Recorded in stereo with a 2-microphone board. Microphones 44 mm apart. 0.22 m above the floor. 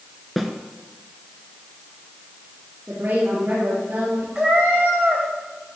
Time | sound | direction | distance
0.4 | a snare drum | centre (ahead or behind) | 1.0 m
2.9 | a woman speaking | 40° right (ahead or behind) | 4 m
4.3 | a cat meowing | 10° right (ahead or behind) | 2.5 m